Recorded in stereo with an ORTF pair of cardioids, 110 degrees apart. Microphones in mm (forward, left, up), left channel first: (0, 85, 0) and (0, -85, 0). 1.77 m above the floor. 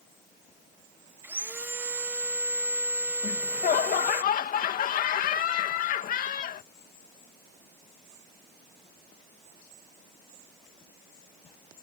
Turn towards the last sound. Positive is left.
turn(degrees=55)